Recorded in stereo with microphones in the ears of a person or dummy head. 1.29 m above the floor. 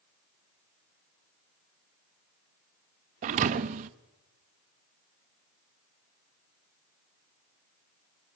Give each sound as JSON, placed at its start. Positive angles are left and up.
{"t": 3.2, "sound": "a thud", "side_deg": -40, "distance_m": 0.7}